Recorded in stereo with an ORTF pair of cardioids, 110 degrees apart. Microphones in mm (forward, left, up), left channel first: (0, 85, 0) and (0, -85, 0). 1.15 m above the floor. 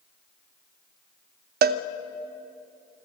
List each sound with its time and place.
1.6 s a cowbell: 65° right, 0.7 m